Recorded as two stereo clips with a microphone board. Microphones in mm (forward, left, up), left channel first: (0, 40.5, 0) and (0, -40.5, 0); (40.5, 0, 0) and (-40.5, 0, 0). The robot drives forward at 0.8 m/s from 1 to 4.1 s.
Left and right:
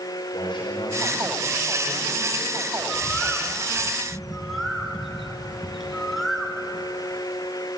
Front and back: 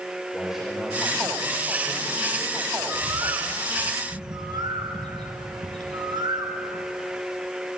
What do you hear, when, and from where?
0.3 s a man speaking: 95° left, 4.5 m; by 2.7 s 110° left, 5 m
2.8 s a bird: 170° left, 0.6 m; by 6.8 s straight behind, 1.4 m